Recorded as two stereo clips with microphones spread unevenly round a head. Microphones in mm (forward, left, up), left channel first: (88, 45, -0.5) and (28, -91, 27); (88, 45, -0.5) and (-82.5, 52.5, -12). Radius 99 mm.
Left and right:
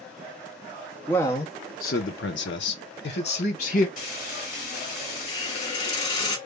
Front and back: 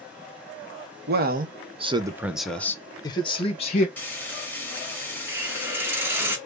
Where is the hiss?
110° left, 0.9 m.